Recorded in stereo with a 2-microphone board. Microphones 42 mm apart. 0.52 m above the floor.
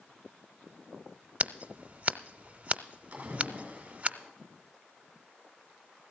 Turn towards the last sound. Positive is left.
turn(degrees=-35)  # may be behind; listen again after turning